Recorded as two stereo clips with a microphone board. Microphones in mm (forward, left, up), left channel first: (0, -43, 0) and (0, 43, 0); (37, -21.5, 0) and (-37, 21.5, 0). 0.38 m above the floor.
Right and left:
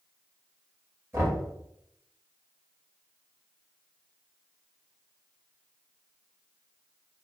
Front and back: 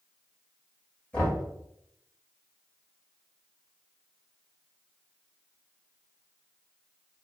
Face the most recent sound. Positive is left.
turn(degrees=40)